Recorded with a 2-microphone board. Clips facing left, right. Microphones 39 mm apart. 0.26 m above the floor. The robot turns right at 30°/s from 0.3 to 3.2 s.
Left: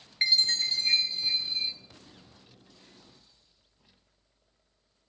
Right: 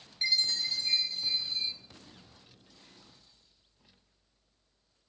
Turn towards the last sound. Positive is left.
turn(degrees=-175)